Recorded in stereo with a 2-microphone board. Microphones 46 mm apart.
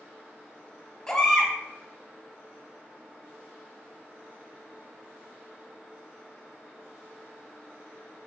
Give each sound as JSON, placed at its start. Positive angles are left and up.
{"t": 1.1, "sound": "a baby crying", "side_deg": 15, "distance_m": 2.0}